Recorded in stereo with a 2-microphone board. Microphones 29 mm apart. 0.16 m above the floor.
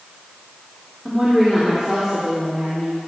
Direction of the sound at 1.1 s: 25° right (ahead or behind).